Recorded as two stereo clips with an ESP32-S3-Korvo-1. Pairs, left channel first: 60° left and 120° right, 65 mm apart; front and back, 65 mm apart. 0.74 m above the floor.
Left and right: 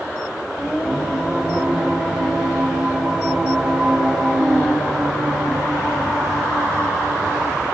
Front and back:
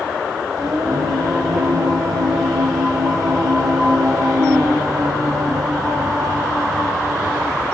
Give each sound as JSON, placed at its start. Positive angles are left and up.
{"t": 0.6, "sound": "singing", "azimuth_deg": 160, "distance_m": 4.5}